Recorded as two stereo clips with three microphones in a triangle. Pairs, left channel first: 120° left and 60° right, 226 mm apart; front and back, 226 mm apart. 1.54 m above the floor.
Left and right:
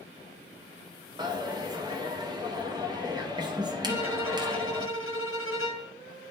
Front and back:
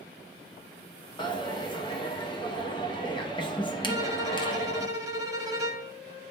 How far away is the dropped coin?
About 0.8 m.